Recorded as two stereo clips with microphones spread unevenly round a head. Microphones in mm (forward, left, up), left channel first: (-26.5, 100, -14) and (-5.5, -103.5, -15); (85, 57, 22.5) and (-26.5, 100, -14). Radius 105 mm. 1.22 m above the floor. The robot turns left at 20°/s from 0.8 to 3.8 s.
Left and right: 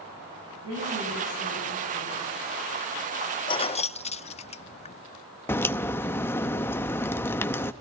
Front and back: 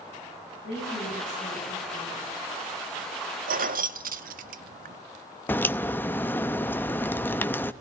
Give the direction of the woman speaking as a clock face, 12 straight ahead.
2 o'clock.